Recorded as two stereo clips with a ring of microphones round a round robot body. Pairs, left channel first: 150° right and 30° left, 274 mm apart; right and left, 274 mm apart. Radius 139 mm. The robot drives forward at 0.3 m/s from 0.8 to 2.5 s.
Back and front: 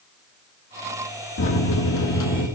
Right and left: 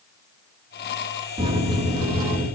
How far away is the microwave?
About 1.4 m.